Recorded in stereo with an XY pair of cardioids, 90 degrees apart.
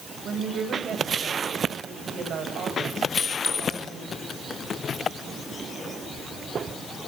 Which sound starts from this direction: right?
A woman speaking, at 0.2 s.